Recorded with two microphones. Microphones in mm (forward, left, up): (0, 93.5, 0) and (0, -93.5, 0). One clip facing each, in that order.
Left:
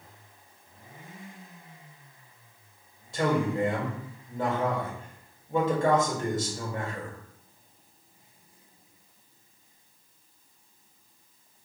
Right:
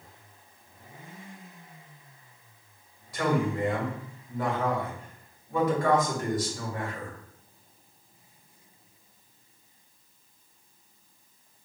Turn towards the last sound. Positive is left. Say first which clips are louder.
# left 1 dB
turn(degrees=25)  # may be behind; listen again after turning